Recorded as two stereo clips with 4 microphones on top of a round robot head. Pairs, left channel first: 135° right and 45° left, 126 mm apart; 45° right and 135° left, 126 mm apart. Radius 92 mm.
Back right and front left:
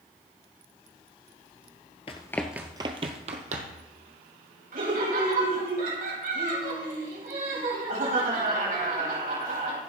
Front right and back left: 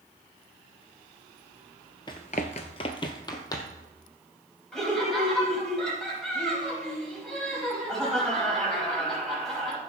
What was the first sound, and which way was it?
Running footsteps, 100° right.